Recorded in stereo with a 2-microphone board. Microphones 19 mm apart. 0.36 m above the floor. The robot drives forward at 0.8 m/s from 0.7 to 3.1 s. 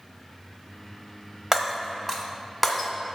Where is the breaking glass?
20° right (ahead or behind), 0.9 m; by 2.9 s 10° right (ahead or behind), 2.0 m.